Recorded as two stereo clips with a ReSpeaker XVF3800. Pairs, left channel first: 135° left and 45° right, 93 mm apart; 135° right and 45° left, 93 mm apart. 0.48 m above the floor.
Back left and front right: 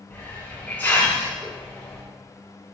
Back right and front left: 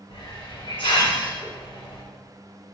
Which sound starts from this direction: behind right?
A hiss, at 0.1 s.